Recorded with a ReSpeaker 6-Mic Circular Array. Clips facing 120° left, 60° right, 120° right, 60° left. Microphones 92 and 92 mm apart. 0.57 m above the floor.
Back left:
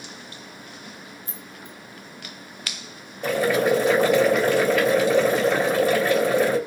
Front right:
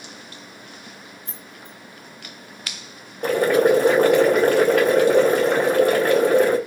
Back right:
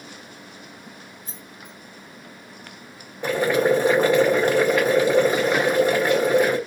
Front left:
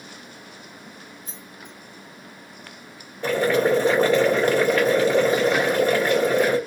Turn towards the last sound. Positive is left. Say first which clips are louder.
# front right 4 dB, even
turn(degrees=-50)